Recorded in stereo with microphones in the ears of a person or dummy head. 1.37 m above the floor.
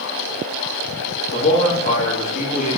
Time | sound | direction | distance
1.3 | a man speaking | 40° left (ahead or behind) | 2 m